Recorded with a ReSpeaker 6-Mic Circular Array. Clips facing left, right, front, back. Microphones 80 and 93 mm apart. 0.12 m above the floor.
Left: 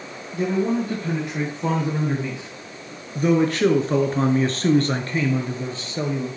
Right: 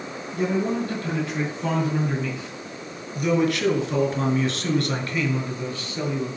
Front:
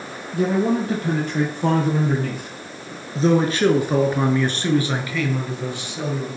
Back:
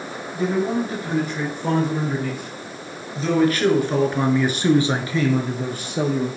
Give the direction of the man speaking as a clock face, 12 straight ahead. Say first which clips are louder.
Left 2 dB, front 2 dB; 12 o'clock.